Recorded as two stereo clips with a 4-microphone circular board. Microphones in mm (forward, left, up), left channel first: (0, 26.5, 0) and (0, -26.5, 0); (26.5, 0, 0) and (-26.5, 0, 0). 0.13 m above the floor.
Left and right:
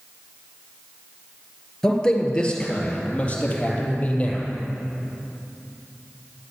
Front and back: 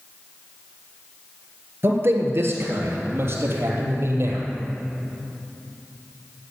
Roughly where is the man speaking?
Behind.